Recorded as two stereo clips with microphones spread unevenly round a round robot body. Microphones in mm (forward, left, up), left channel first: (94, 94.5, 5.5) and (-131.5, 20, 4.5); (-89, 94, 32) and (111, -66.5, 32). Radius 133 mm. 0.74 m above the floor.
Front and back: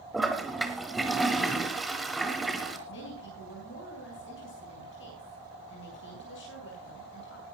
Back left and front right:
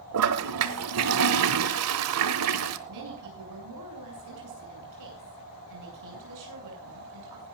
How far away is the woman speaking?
About 7.5 m.